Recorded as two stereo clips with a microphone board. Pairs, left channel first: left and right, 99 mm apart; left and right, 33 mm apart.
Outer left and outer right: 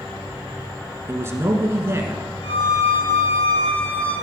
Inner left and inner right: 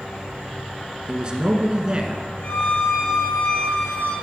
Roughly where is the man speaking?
Right.